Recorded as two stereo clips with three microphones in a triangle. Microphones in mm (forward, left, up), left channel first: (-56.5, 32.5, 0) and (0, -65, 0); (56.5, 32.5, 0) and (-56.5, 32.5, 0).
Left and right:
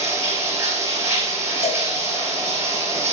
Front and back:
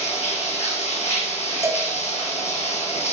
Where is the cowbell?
115° left, 0.7 m.